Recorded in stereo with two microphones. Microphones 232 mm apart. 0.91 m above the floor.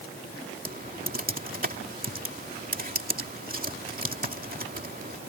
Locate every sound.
0.7 s typing on a keyboard: 40° right (ahead or behind)